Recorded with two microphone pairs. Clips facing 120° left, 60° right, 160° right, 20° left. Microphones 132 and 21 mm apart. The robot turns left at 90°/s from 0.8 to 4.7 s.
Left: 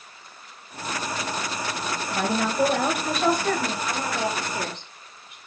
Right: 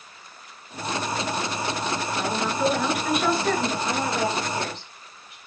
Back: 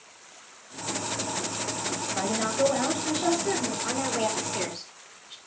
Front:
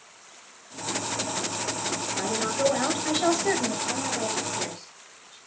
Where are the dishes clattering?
I don't hear dishes clattering.